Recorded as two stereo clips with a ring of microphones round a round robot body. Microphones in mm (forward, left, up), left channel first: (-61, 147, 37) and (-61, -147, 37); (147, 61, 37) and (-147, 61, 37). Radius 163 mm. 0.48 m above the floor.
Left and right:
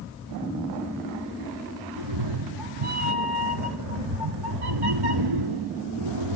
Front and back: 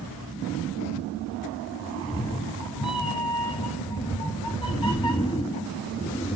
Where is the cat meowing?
75° right, 1.3 m.